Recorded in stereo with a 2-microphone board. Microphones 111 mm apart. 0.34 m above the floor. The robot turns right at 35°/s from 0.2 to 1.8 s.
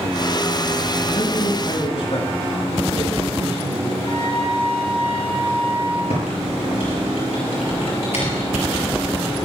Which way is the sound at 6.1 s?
80° left.